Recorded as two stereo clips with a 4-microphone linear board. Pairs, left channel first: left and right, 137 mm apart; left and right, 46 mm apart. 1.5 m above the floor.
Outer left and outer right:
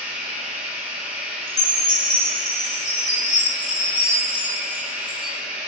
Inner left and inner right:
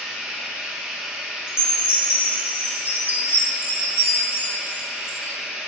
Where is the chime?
60° left (ahead or behind), 1.0 m.